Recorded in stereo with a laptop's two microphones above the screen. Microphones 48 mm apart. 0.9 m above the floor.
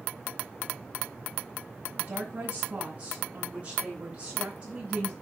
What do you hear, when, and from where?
2.0 s a woman speaking: 40° right (ahead or behind), 9.5 m; by 5.1 s 25° right (ahead or behind), 10.5 m